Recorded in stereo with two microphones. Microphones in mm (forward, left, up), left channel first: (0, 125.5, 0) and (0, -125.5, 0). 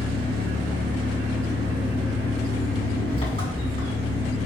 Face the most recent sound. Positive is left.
turn(degrees=25)  # may be behind; listen again after turning